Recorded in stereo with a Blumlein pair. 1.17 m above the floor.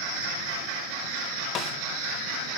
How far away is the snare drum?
About 1.1 m.